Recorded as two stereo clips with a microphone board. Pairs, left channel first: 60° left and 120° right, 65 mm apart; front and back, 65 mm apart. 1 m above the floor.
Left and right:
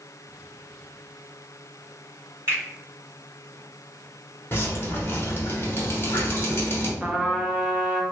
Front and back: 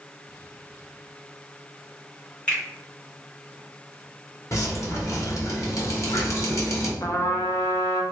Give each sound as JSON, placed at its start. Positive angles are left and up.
{"t": 2.5, "sound": "a finger snap", "azimuth_deg": -70, "distance_m": 1.8}
{"t": 4.5, "sound": "dripping", "azimuth_deg": 20, "distance_m": 0.9}
{"t": 7.0, "sound": "a trumpet", "azimuth_deg": -40, "distance_m": 0.6}